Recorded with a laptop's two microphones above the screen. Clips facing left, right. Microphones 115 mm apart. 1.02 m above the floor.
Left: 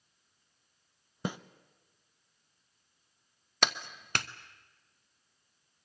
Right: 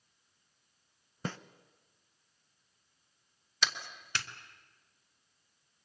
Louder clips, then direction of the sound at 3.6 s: Left 4 dB; 55° left (ahead or behind).